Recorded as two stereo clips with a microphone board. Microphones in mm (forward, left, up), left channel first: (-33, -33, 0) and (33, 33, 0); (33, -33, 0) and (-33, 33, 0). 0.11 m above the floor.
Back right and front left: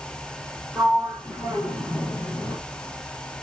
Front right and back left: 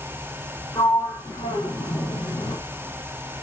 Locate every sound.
0.8 s a sliding door: 75° right, 3 m